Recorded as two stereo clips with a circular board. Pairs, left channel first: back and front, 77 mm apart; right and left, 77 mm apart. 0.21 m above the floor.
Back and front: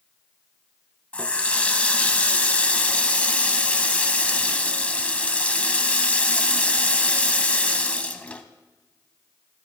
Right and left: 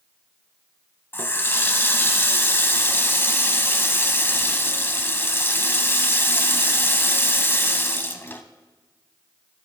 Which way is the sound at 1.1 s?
120° right.